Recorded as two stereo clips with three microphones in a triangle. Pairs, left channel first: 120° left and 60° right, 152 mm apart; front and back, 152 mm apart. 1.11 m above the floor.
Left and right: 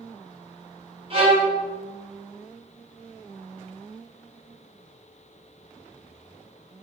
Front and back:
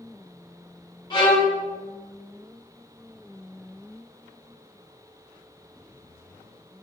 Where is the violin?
40° right, 0.9 m.